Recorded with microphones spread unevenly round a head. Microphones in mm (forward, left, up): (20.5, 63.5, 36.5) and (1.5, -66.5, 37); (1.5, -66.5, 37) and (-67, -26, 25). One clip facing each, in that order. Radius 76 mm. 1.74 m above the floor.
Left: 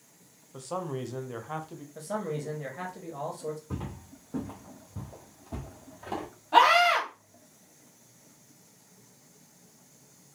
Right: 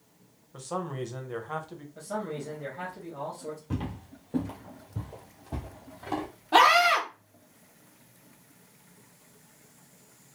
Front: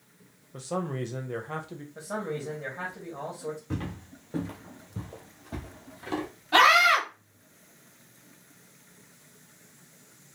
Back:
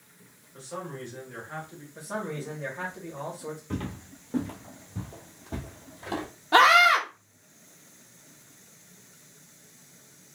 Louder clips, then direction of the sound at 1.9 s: Left 1 dB, even; 50° left.